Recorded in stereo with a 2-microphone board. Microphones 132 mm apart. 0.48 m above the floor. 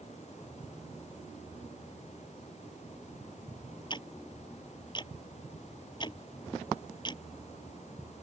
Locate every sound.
3.9 s ticking: 35° left (ahead or behind)